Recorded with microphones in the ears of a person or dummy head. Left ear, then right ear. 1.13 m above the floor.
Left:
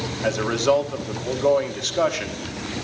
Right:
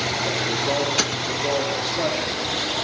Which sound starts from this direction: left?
A man speaking, at 0.2 s.